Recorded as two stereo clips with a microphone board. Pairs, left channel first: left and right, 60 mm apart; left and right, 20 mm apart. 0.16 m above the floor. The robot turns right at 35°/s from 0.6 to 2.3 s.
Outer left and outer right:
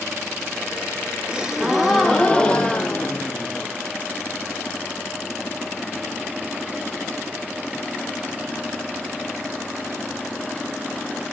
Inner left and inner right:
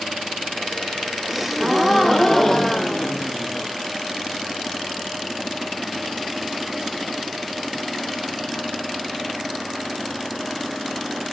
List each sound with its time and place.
1.3 s a gasp: 15° right, 0.5 m; by 3.7 s 20° left, 0.5 m